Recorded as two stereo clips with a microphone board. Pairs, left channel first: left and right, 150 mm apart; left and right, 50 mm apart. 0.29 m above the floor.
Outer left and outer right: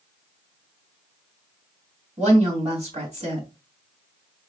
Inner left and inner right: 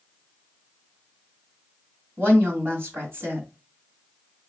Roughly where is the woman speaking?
Right.